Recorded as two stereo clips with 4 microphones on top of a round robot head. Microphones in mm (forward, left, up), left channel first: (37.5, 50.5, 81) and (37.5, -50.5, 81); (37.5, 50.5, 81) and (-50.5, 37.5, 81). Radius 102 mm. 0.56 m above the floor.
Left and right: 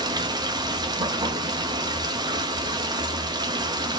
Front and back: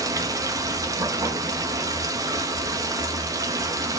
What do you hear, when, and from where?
0.0 s running water: 130° right, 0.8 m